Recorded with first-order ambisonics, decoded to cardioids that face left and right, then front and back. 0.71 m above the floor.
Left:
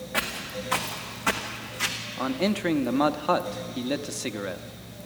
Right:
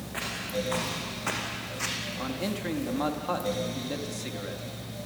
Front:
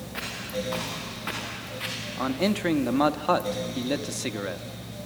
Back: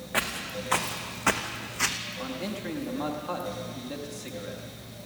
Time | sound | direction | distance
0.1 | footsteps | 160° left | 3 m
2.2 | a man speaking | 35° left | 0.7 m